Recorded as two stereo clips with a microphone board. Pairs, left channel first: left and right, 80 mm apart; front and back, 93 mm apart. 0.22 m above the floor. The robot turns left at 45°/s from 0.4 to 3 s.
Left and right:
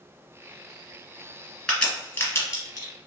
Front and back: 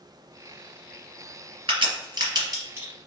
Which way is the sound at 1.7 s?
170° left.